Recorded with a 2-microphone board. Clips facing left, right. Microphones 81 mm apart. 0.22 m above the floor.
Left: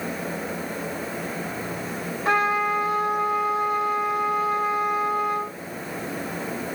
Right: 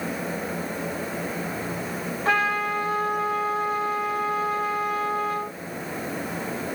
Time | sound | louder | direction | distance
2.2 | a trumpet | left 2 dB | 5° left (ahead or behind) | 1.6 m